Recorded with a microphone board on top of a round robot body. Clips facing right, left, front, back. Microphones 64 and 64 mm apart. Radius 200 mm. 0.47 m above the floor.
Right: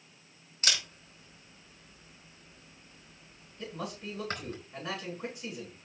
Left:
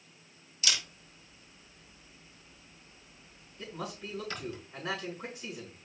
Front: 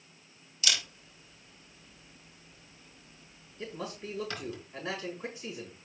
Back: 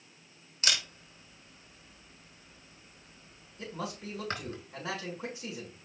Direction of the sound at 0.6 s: 135° right.